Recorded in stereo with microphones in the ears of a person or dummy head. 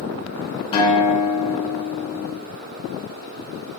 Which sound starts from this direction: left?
A guitar, at 0.7 s.